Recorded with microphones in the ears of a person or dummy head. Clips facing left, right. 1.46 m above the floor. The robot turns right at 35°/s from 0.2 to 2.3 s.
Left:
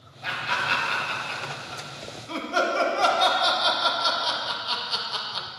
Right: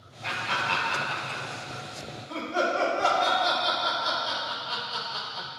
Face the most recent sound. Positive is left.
turn(degrees=75)  # may be behind; listen again after turning